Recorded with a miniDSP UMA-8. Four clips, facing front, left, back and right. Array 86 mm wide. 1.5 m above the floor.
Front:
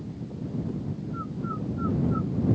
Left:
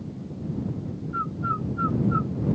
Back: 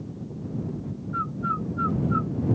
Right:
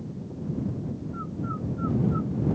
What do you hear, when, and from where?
1.1 s a bird: 140° left